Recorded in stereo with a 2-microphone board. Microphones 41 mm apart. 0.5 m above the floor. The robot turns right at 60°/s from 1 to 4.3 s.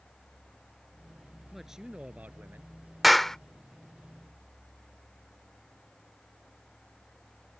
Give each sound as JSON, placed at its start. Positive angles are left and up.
{"t": 1.5, "sound": "a man speaking", "azimuth_deg": 180}
{"t": 3.0, "sound": "a clap", "side_deg": -5}